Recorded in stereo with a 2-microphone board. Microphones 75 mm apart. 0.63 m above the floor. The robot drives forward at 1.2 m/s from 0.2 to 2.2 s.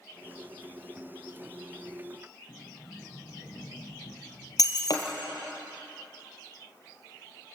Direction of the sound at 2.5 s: 55° left (ahead or behind).